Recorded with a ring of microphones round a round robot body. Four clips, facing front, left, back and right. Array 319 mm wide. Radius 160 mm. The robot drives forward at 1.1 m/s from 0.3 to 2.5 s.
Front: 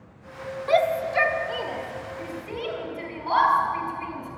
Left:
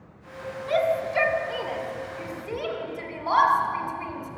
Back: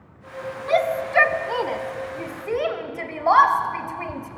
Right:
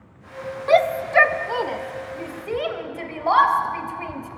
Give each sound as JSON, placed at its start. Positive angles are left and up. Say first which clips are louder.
{"t": 0.7, "sound": "a shout", "louder": "right 6 dB, back 1 dB", "azimuth_deg": -90, "distance_m": 1.3}